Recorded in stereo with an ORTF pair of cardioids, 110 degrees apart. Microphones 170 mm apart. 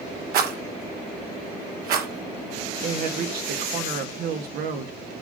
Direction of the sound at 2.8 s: 60° right.